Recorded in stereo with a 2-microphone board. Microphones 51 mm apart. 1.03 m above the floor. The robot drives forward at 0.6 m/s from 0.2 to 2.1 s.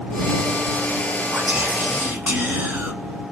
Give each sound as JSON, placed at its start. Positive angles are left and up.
{"t": 1.3, "sound": "whispering", "side_deg": -30, "distance_m": 1.2}